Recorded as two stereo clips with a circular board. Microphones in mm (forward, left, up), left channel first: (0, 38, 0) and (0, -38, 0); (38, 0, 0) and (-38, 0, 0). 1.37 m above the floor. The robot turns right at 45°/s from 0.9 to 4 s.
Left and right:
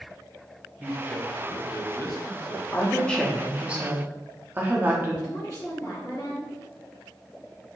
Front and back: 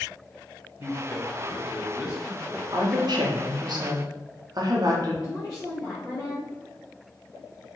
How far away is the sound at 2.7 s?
About 0.6 m.